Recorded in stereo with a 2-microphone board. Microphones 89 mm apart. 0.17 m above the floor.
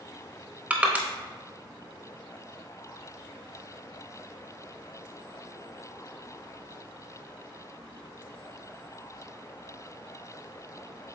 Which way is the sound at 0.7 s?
15° right (ahead or behind).